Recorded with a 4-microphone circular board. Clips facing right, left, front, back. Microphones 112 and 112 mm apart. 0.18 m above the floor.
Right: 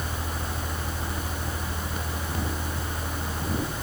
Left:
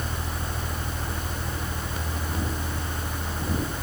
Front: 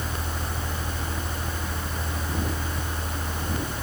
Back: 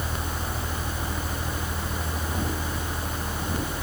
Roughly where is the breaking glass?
No breaking glass in this recording.